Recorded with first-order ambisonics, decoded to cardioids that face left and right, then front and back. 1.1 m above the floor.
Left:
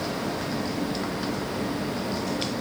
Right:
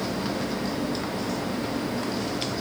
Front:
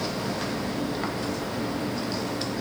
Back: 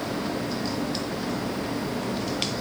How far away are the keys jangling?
I don't hear keys jangling.